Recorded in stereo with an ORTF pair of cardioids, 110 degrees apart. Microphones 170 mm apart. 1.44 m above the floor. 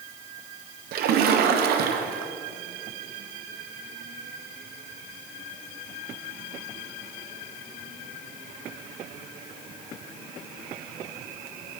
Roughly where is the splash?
Ahead right.